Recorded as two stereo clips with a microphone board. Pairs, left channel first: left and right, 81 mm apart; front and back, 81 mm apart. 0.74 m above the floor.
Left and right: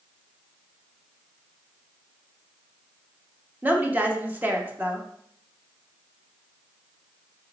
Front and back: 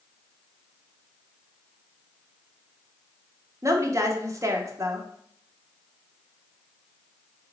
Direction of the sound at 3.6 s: 150° right.